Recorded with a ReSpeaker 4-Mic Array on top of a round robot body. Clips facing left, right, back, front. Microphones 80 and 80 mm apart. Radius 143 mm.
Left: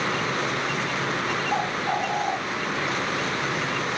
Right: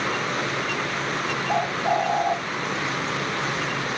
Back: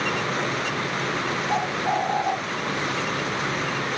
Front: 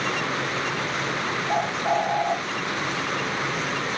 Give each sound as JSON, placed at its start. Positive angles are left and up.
{"t": 1.5, "sound": "a bird", "azimuth_deg": -115, "distance_m": 2.5}